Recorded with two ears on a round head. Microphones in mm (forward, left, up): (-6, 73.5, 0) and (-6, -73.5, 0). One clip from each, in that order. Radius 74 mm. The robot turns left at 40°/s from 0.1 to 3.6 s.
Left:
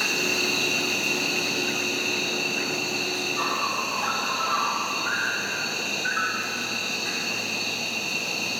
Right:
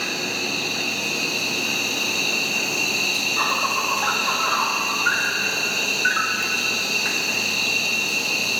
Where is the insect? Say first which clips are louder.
Left 1 dB; 50° left, 1.2 m; by 8.6 s 90° right, 1.2 m.